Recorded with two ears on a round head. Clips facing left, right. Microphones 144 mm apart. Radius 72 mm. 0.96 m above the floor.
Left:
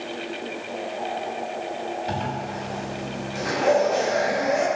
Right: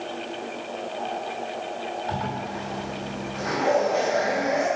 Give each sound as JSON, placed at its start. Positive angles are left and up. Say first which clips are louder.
{"t": 2.1, "sound": "a zipper", "louder": "left 1 dB", "side_deg": 35, "distance_m": 5.0}